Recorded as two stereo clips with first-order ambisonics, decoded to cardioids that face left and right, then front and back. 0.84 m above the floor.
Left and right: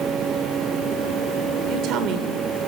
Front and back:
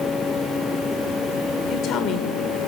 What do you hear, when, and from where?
1.7 s a woman speaking: 50° right, 2.5 m